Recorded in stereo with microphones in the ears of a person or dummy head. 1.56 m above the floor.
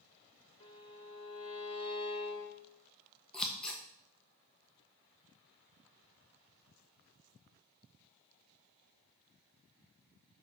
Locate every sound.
0.6 s a violin: 35° left (ahead or behind), 2 m
3.3 s scissors: 5° left (ahead or behind), 1.3 m